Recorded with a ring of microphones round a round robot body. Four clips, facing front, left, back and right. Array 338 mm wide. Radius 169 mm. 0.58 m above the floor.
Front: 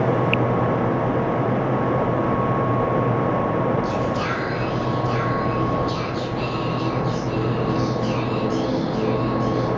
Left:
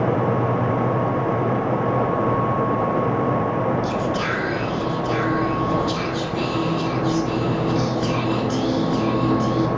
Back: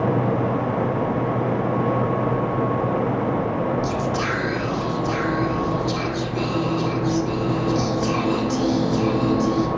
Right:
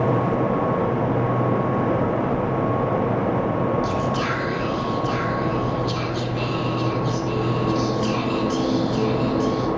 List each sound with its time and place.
3.8 s whispering: 165° left, 1.8 m